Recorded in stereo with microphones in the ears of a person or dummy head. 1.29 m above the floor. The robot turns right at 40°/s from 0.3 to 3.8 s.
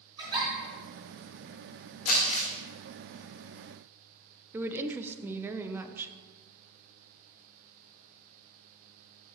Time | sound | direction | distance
0.2 | a giggle | 25° right (ahead or behind) | 3.5 m
2.0 | crumpling | 55° left (ahead or behind) | 1.8 m
4.5 | a woman speaking | 10° right (ahead or behind) | 0.5 m